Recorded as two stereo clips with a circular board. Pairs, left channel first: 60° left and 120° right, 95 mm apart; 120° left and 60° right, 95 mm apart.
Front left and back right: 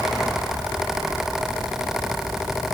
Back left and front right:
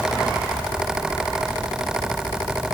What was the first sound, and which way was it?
Only background noise.